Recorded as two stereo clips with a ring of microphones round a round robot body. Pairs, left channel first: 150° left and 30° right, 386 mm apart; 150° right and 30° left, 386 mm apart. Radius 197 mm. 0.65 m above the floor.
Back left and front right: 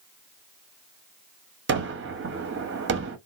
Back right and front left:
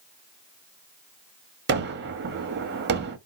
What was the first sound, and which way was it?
A gunshot, 5° right.